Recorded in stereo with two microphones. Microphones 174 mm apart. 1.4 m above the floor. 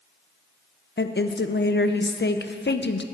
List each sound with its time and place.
1.0 s a woman speaking: 75° left (ahead or behind), 0.6 m